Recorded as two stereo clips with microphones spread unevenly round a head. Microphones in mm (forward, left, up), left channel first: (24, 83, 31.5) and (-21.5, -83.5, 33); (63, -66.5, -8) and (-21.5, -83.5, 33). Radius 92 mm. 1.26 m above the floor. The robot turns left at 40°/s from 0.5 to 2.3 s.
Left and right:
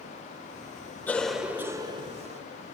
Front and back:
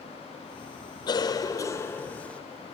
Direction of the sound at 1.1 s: 5° right.